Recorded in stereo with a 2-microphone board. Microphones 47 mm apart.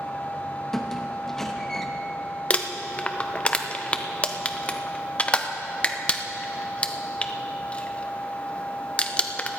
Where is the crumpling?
25° left (ahead or behind), 0.6 m.